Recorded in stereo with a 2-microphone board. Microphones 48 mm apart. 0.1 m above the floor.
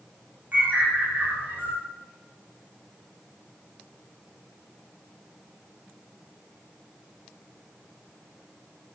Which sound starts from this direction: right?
A bird, at 0.5 s.